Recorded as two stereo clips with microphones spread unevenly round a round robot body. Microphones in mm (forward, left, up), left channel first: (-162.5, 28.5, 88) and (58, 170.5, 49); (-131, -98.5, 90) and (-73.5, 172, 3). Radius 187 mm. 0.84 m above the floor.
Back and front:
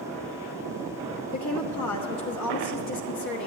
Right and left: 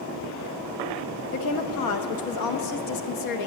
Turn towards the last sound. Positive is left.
turn(degrees=-115)